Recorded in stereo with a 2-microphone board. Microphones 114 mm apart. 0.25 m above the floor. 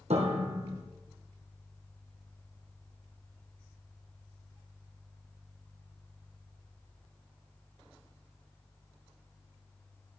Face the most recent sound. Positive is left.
turn(degrees=-75)  # may be behind; listen again after turning